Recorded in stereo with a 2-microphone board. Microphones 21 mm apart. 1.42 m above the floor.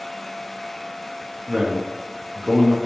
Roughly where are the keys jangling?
No keys jangling in this recording.